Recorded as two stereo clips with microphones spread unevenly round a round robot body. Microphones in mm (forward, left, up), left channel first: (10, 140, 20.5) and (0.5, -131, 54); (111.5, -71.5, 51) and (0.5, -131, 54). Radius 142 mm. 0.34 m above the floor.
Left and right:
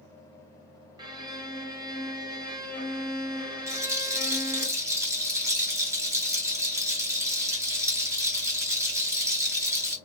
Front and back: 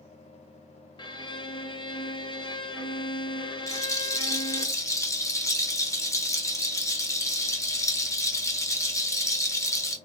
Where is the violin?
15° right, 1.0 m.